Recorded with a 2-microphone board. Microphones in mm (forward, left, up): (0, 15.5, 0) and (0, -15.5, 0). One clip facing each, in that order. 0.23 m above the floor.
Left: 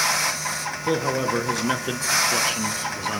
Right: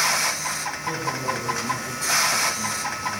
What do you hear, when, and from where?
0.8 s a man speaking: 55° left (ahead or behind), 3 m; by 3.2 s 60° left (ahead or behind), 1.9 m